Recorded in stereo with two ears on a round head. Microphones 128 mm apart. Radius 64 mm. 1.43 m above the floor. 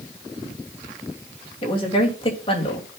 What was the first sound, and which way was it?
A woman speaking, 40° left (ahead or behind).